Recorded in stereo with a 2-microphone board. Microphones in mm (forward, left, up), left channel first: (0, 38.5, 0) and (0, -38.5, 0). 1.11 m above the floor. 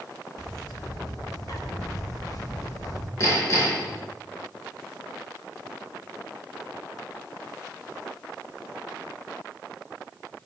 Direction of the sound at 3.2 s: 35° left (ahead or behind).